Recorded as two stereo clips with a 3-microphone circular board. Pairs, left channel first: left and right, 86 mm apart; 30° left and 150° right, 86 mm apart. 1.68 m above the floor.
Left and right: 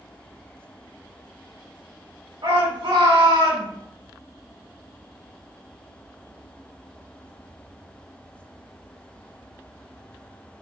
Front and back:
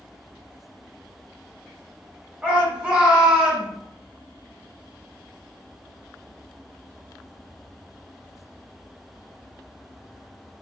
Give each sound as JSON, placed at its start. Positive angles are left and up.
{"t": 2.4, "sound": "a shout", "azimuth_deg": -80, "distance_m": 2.0}